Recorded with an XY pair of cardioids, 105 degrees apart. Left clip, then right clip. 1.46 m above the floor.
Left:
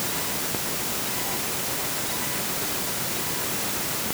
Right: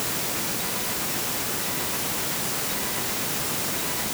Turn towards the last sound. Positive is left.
No sound to turn to.